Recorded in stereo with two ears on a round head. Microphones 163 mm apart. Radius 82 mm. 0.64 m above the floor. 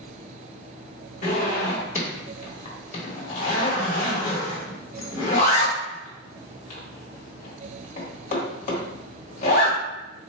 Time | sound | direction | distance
1.2 | a zipper | 45° left (ahead or behind) | 1.3 m